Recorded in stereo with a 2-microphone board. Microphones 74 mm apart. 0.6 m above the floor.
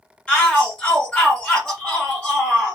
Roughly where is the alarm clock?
No alarm clock in this recording.